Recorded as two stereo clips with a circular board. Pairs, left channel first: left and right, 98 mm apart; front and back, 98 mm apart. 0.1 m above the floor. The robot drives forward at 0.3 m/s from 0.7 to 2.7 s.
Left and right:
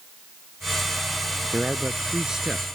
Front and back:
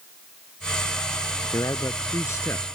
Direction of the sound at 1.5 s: 10° right.